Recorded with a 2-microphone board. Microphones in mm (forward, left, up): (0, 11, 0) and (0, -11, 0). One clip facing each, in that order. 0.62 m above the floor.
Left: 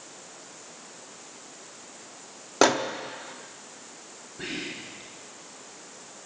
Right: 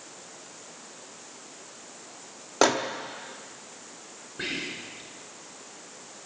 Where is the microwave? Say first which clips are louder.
Left 1 dB; 5° left (ahead or behind), 0.8 m.